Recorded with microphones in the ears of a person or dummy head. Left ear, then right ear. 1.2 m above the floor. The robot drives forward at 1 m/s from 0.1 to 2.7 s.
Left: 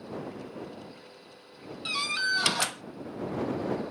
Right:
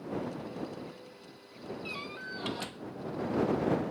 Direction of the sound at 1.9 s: 45° left (ahead or behind).